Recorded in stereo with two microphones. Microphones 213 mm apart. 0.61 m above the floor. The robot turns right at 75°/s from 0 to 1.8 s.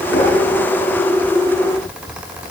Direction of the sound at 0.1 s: 75° left (ahead or behind).